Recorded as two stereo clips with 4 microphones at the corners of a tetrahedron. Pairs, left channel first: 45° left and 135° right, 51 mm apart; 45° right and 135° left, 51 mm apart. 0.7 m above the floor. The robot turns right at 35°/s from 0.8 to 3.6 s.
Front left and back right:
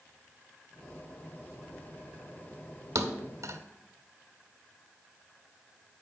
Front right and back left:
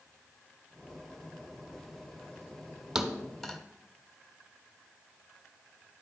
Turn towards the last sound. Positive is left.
turn(degrees=-120)